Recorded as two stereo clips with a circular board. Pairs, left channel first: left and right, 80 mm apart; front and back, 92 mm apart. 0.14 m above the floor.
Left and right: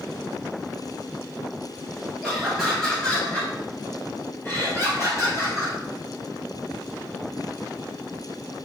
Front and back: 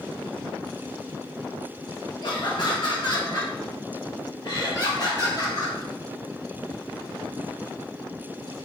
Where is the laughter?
10° right, 2.5 m; by 5.8 s 45° left, 4.5 m.